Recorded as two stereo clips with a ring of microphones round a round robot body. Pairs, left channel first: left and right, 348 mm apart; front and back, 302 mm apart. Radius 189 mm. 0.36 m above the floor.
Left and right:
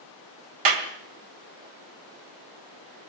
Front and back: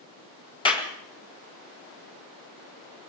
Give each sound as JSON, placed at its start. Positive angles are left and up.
{"t": 0.7, "sound": "a clap", "azimuth_deg": -75, "distance_m": 2.0}